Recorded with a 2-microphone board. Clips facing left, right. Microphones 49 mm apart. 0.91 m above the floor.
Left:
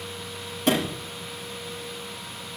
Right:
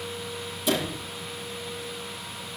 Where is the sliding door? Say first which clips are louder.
Left 3 dB; 60° left (ahead or behind), 7.5 m.